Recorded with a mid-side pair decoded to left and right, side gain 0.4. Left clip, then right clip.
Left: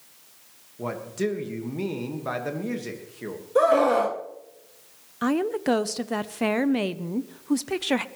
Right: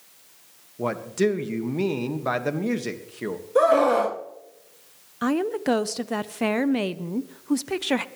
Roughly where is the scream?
Ahead.